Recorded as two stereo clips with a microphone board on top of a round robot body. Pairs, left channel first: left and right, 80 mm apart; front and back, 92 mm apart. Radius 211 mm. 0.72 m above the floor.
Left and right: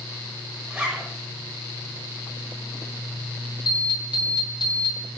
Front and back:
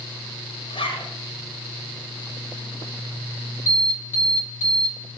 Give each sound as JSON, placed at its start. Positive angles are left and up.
{"t": 0.7, "sound": "a zipper", "azimuth_deg": -10, "distance_m": 1.8}
{"t": 3.7, "sound": "an alarm", "azimuth_deg": 115, "distance_m": 4.0}